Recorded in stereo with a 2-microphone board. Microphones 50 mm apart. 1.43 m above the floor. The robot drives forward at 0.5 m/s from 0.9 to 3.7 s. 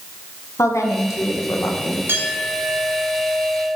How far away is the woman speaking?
About 1.2 m.